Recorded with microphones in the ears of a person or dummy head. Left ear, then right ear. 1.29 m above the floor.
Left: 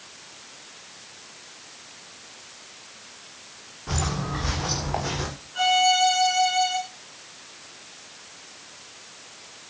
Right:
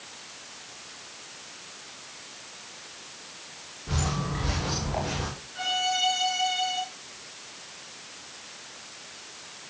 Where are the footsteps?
40° left (ahead or behind), 8.5 m; by 5.3 s 45° left (ahead or behind), 9.5 m.